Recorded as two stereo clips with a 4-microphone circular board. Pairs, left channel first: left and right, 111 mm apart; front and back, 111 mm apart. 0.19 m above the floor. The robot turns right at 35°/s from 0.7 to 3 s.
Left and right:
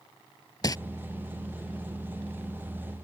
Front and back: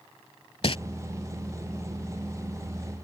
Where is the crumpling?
35° left.